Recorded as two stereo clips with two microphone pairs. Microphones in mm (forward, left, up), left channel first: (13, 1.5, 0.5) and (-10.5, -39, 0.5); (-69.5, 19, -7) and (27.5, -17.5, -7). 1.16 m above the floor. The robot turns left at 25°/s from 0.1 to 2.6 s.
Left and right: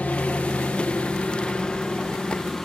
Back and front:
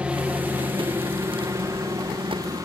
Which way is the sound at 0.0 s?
50° left.